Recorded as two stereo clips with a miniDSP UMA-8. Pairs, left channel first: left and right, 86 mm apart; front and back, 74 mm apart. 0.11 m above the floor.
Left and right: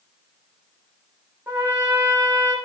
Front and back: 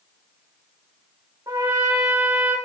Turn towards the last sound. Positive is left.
turn(degrees=-155)